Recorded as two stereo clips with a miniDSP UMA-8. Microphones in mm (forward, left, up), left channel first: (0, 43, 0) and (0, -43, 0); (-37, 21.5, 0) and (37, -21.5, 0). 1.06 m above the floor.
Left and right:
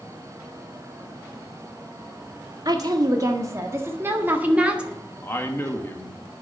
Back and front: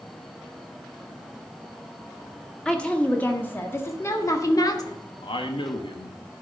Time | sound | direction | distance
2.6 | a woman speaking | 130° right | 1.8 m
5.2 | a man speaking | 155° left | 1.2 m